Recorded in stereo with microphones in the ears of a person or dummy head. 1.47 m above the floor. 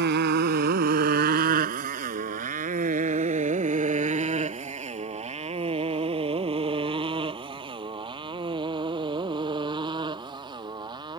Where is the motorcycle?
60° right (ahead or behind); by 11.2 s 20° right (ahead or behind).